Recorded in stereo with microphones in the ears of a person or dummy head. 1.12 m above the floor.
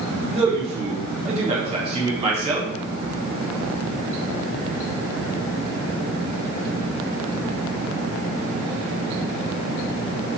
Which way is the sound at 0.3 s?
25° right (ahead or behind).